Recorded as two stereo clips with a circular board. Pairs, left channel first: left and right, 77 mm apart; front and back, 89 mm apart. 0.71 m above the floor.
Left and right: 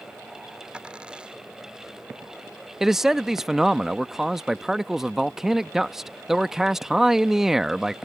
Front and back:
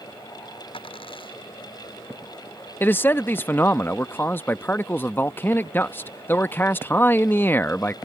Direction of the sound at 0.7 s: 15° right.